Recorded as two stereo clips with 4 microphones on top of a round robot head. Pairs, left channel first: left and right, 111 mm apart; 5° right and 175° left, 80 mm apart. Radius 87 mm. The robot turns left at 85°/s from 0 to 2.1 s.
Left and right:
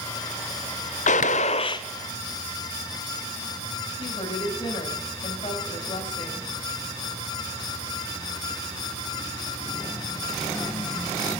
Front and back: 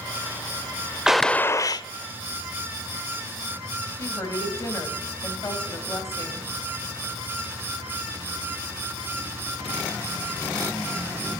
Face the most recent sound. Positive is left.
turn(degrees=45)